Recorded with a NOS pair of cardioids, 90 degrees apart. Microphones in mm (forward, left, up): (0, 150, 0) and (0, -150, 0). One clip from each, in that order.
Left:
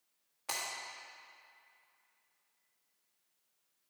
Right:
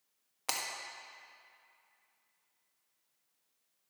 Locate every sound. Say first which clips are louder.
0.5 s breaking glass: right 2 dB; 55° right, 1.5 m